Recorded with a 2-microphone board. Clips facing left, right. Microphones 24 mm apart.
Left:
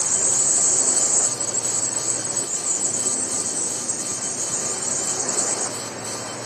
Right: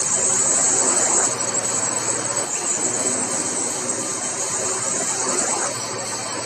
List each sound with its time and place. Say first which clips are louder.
0.0 s a drone: right 1 dB; 80° right